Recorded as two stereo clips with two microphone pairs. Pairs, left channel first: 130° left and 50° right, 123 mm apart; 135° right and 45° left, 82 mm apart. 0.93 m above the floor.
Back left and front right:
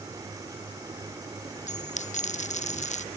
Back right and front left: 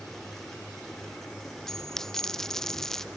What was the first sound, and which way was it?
A dropped coin, 140° left.